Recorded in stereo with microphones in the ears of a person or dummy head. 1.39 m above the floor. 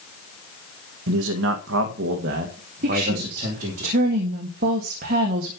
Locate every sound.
1.1 s a man speaking: 85° right, 1.3 m; by 3.8 s 40° right (ahead or behind), 3 m
2.8 s a woman speaking: 50° right (ahead or behind), 1.8 m